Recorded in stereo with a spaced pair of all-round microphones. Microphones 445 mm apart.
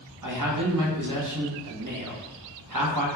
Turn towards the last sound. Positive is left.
turn(degrees=-45)  # may be behind; listen again after turning